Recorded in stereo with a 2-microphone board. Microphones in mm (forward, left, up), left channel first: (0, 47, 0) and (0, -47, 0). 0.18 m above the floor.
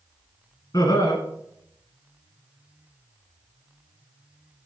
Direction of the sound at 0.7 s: 45° left (ahead or behind).